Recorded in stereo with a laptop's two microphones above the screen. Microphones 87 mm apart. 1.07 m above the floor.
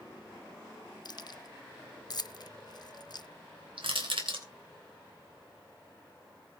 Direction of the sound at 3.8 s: 80° right.